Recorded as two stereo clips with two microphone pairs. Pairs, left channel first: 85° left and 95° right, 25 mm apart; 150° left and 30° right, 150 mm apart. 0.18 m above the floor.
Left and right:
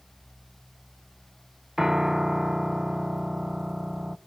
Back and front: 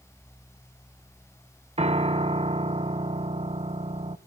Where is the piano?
20° right, 0.5 m.